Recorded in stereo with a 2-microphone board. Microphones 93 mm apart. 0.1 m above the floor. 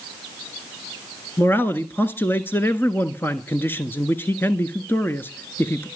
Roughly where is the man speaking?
Left.